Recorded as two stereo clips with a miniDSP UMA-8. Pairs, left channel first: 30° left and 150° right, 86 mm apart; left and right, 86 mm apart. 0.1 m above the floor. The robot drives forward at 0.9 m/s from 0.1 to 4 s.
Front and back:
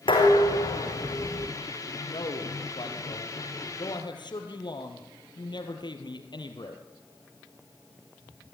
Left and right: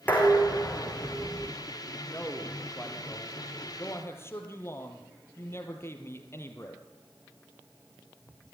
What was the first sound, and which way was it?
Dishes clattering, 20° left.